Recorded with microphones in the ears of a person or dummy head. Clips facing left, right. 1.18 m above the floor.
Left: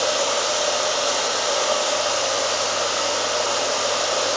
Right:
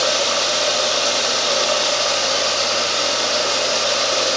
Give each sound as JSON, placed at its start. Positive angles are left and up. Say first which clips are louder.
{"t": 0.0, "sound": "running water", "louder": "right 1 dB", "side_deg": -30, "distance_m": 1.4}